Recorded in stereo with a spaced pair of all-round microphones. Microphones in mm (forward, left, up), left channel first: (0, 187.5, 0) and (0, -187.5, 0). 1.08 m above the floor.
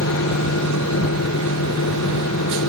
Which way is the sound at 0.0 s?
45° left (ahead or behind).